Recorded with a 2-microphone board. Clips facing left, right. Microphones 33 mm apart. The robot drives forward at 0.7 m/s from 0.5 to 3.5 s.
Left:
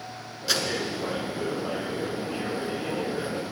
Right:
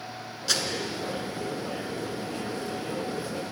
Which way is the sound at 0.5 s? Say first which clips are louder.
Left 2 dB; 10° left (ahead or behind).